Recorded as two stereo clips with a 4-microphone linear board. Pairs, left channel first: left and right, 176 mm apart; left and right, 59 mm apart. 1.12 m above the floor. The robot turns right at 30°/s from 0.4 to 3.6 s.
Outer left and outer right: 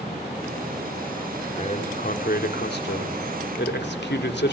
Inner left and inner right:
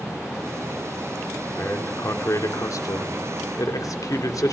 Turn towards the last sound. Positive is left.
turn(degrees=100)